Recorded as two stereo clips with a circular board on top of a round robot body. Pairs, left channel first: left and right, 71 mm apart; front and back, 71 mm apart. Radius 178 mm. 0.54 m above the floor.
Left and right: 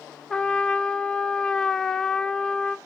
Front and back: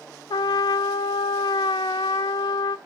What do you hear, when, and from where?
0.3 s a trumpet: 10° left, 0.7 m